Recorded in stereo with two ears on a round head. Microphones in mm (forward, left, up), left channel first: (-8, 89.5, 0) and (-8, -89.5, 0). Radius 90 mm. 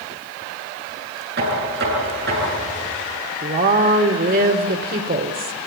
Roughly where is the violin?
I don't hear a violin.